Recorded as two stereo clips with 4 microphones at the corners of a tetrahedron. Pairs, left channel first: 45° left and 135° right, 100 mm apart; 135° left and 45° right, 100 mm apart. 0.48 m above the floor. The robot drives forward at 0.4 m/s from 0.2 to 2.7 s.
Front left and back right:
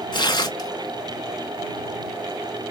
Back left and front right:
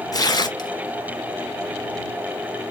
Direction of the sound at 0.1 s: 85° left.